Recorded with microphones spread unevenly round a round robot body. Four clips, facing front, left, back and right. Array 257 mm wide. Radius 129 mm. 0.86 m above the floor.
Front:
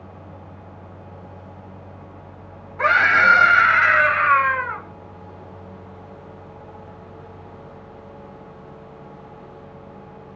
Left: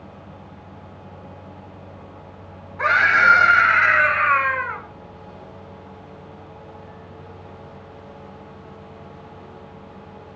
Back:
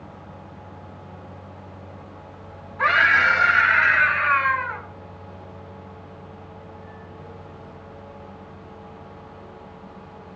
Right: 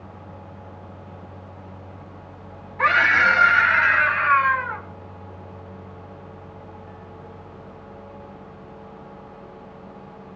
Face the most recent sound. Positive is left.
turn(degrees=45)